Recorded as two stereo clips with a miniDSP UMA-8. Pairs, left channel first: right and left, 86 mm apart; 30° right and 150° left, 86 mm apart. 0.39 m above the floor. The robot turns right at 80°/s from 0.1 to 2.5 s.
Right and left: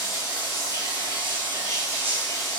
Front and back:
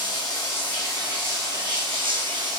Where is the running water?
5° right, 2 m; by 2.6 s 170° right, 2 m.